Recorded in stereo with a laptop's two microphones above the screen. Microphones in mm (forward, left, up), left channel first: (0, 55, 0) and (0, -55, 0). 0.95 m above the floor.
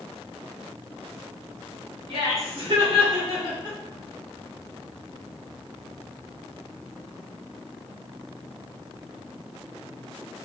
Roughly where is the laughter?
Right.